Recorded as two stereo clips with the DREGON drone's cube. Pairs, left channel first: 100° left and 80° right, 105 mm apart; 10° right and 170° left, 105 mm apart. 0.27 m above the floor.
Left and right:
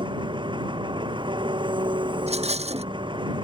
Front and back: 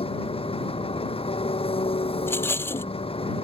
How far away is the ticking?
No ticking in this recording.